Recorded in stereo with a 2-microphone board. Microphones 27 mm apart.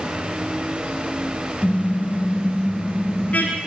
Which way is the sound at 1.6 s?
55° left (ahead or behind).